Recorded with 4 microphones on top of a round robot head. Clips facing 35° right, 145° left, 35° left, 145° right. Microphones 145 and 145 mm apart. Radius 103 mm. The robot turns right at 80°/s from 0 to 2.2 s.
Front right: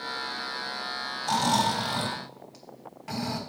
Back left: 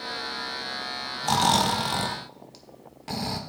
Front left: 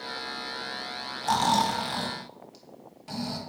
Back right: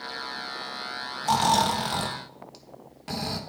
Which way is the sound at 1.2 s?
120° left.